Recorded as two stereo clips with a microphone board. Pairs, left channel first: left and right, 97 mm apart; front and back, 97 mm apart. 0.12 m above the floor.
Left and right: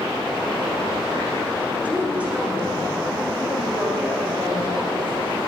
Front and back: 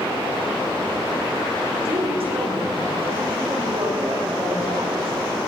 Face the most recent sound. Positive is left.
turn(degrees=-165)